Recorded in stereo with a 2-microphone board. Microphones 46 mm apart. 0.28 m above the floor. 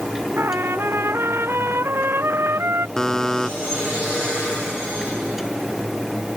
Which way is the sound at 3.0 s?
10° left (ahead or behind).